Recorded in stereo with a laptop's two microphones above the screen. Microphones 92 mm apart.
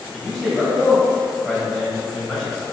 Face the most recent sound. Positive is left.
turn(degrees=5)  # may be behind; listen again after turning